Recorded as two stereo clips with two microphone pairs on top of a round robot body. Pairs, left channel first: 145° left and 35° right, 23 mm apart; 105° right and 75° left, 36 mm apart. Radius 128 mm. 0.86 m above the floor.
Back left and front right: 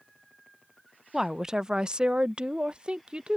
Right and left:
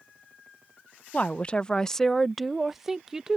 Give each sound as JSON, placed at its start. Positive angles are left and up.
{"t": 1.1, "sound": "a woman speaking", "azimuth_deg": -105}